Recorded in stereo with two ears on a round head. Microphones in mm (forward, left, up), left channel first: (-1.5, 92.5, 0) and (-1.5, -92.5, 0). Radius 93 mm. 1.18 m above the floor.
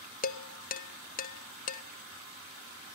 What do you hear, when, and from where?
0.2 s dishes clattering: 40° left (ahead or behind), 0.8 m